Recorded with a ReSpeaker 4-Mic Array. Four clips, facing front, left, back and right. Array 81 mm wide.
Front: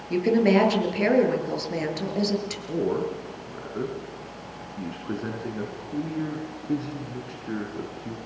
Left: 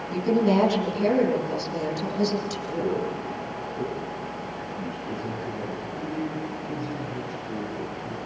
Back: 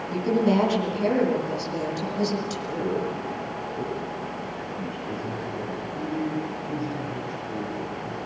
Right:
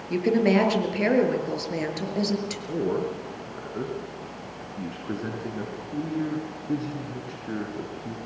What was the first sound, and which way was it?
A woman speaking, 45° right.